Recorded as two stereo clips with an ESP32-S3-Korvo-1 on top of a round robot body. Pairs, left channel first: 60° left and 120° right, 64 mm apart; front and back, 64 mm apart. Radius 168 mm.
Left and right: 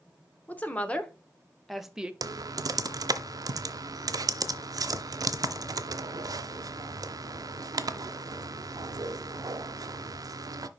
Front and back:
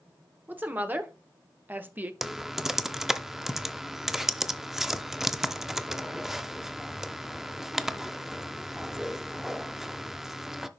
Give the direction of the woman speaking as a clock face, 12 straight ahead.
8 o'clock.